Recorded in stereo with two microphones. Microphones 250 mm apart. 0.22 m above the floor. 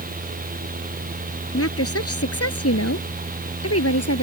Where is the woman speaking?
65° left (ahead or behind); by 4.2 s 70° left (ahead or behind).